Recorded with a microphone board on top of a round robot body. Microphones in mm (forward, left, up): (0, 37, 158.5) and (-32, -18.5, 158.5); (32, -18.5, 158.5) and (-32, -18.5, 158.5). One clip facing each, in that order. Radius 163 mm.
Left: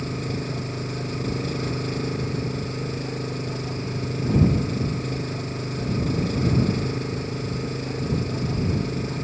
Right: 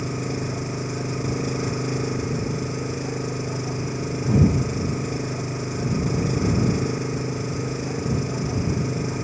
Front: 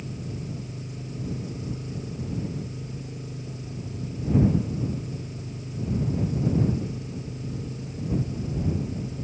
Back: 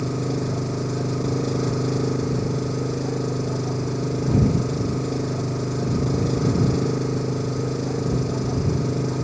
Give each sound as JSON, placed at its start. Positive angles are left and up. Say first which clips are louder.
{"t": 0.0, "sound": "an engine running", "louder": "right 2 dB, back 11 dB", "azimuth_deg": 160}